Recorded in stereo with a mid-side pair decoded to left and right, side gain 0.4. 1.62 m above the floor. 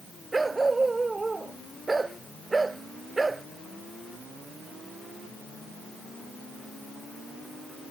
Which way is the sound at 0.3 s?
25° right.